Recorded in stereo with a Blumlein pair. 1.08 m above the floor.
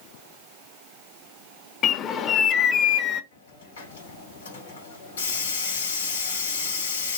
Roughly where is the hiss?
Ahead left.